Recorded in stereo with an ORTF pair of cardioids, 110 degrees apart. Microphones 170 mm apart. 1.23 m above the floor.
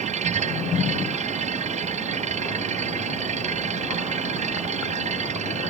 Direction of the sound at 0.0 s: 45° right.